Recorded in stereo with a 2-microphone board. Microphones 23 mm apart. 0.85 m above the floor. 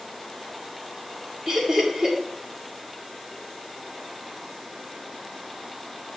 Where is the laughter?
25° right (ahead or behind), 1.7 m.